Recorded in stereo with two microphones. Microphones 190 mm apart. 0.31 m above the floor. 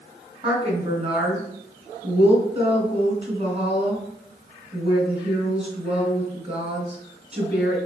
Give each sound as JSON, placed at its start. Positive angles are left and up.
{"t": 0.4, "sound": "a woman speaking", "side_deg": -35, "distance_m": 3.0}